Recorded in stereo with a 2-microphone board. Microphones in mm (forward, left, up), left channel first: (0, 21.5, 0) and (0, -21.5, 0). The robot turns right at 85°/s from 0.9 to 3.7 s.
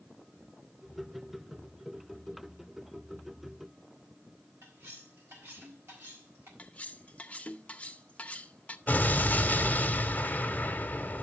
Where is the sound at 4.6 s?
85° right, 4.5 m.